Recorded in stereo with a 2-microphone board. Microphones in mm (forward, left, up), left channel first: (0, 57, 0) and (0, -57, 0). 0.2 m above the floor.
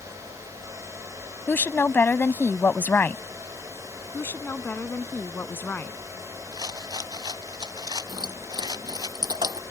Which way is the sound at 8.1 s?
35° right (ahead or behind).